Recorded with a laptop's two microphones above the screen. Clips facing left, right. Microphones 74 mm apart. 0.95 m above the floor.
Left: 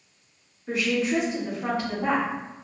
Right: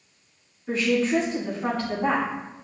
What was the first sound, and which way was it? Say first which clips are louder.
A woman speaking: right 2 dB; 5° left (ahead or behind).